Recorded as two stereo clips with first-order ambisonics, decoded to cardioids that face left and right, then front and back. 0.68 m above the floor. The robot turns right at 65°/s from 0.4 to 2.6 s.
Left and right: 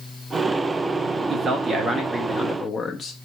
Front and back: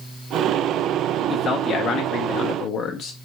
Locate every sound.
1.3 s a man speaking: 70° right, 0.5 m; by 3.1 s 15° left, 0.5 m